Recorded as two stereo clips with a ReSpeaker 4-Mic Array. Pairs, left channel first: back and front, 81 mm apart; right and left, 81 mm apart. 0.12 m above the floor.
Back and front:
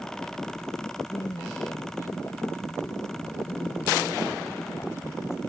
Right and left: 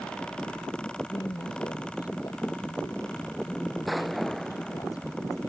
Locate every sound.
1.1 s a woman speaking: 125° right